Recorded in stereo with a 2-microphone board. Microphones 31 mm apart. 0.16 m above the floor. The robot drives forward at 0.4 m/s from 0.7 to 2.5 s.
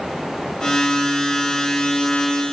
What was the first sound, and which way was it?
Only background noise.